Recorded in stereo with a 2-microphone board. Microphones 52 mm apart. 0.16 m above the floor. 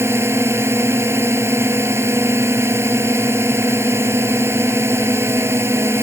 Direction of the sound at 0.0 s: 55° right (ahead or behind).